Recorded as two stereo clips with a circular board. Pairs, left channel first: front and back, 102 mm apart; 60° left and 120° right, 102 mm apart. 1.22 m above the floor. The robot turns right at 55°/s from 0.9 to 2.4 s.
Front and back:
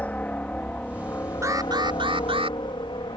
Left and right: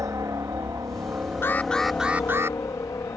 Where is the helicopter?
70° right; by 3.2 s 10° left.